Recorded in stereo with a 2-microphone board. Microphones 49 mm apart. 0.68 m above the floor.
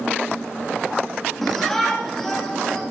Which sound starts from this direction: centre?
A shout, at 1.4 s.